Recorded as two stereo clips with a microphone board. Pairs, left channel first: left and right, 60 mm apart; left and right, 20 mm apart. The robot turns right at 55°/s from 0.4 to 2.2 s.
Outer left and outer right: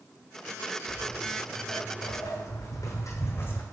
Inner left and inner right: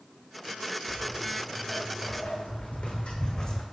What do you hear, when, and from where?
0.9 s footsteps: 15° right (ahead or behind), 1.5 m; by 3.6 s 30° left (ahead or behind), 0.6 m